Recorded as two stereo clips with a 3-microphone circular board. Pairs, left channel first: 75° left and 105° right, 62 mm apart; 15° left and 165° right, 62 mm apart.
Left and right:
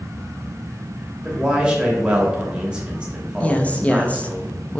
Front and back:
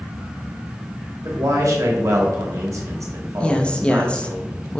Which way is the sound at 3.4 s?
55° left.